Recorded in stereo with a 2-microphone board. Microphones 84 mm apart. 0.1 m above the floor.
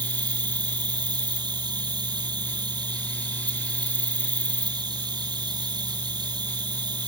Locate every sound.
0.0 s an insect: 65° right (ahead or behind)